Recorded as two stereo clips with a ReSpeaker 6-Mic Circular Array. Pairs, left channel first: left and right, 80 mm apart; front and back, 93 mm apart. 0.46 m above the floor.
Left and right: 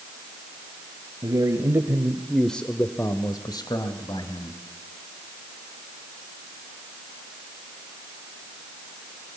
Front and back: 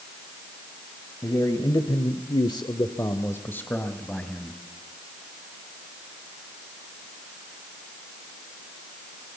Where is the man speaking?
50° right, 2 m; by 4.6 s 85° left, 3 m.